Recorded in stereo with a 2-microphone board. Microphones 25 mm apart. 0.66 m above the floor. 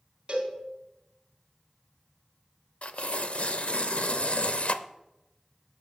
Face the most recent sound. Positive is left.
turn(degrees=65)  # may be behind; listen again after turning